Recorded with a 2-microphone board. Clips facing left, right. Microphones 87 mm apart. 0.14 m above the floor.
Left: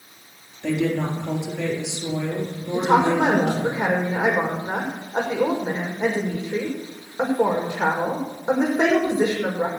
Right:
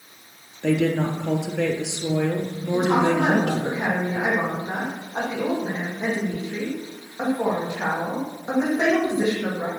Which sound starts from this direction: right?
A woman speaking, at 0.6 s.